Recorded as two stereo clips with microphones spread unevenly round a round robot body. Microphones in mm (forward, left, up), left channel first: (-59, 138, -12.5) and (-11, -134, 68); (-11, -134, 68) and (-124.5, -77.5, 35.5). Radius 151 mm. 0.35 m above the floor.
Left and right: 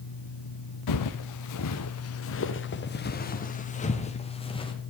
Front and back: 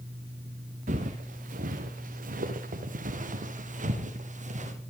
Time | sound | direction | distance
0.9 | footsteps | 105° left | 2.5 m